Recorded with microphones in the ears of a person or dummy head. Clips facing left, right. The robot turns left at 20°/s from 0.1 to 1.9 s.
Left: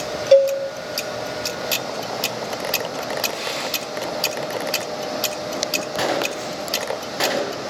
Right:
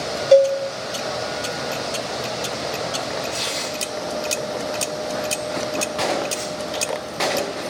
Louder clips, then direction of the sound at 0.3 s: Even; 5° right (ahead or behind).